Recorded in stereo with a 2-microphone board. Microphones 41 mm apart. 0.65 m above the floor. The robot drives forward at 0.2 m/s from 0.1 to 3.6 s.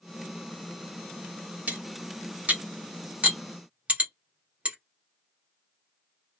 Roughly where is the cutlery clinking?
Right.